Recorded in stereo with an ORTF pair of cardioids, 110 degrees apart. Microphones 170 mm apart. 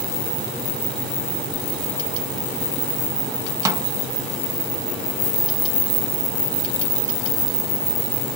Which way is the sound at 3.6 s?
20° right.